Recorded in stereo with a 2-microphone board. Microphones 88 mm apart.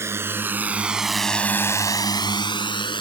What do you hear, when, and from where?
0.0 s a drone: 30° right (ahead or behind); by 3.0 s 60° left (ahead or behind)